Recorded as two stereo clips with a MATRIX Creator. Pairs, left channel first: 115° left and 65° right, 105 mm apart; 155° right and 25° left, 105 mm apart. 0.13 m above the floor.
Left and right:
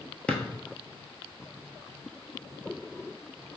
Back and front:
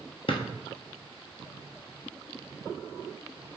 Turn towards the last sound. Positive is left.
turn(degrees=-170)